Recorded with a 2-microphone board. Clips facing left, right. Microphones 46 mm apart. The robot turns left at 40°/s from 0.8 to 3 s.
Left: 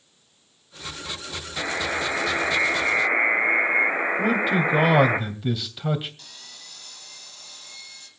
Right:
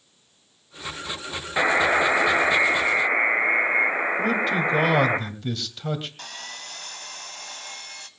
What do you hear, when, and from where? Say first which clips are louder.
1.6 s a buzzer: right 7 dB; 120° right, 1.6 m; by 5.2 s 175° right, 1.6 m
4.2 s a man speaking: left 3 dB; 10° left (ahead or behind), 2.5 m
6.2 s sawing: right 9 dB; 60° right (ahead or behind), 1.3 m